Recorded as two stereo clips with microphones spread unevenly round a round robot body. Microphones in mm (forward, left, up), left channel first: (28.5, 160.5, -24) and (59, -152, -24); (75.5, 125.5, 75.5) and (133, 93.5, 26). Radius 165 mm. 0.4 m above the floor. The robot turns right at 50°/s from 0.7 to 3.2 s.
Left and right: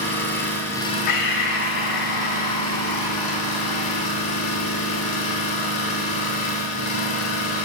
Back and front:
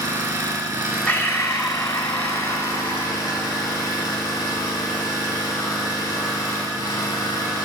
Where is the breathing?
65° left, 0.9 m; by 4.1 s 175° left, 0.9 m.